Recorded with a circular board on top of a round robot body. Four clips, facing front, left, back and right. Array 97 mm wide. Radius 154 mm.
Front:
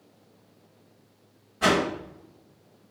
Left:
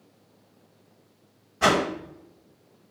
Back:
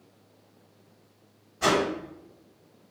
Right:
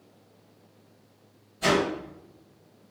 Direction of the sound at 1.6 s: 80° left.